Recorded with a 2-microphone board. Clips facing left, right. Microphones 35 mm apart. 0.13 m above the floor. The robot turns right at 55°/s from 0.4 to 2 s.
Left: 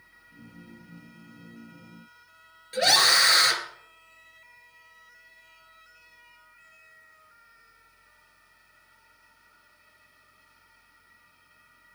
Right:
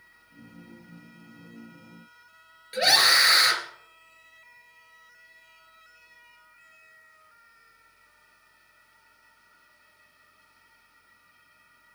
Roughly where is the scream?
Centre.